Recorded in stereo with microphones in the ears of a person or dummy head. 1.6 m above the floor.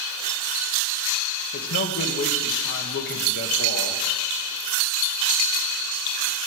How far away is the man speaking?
About 2 m.